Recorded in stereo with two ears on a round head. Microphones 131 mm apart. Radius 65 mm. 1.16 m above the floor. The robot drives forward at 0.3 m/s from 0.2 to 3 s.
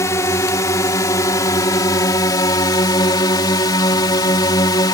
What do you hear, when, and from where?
0.0 s a drone: 20° left (ahead or behind); by 5.0 s 25° left (ahead or behind)